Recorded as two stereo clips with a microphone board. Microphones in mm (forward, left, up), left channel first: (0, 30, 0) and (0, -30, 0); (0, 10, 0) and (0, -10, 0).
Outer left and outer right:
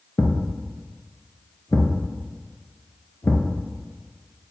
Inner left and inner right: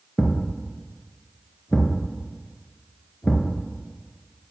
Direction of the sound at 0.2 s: 50° left (ahead or behind).